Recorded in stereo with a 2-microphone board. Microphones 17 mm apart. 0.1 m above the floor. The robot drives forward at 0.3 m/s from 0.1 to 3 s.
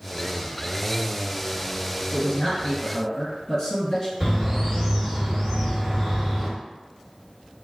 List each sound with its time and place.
2.1 s a man speaking: 40° left (ahead or behind), 1.8 m
4.2 s a bird: 20° right (ahead or behind), 1.9 m